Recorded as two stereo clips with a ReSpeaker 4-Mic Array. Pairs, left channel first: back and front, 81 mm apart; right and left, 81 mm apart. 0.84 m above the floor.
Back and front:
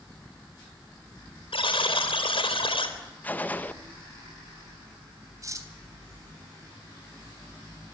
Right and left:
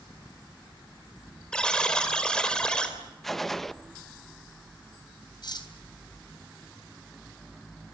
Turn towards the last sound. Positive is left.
turn(degrees=-55)